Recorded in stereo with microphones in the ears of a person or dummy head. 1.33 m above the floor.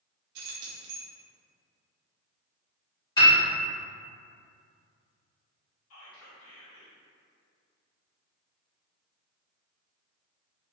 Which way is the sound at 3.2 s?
15° left (ahead or behind).